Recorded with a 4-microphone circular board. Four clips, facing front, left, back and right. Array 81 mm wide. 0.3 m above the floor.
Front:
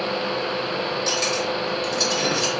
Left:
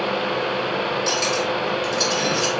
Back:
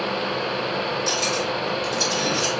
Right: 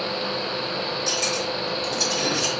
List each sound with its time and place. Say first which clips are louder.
1.1 s cutlery clinking: left 5 dB, even; 40° left, 1.6 m